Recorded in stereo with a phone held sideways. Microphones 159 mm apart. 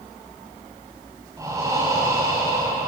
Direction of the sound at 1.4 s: 20° right (ahead or behind).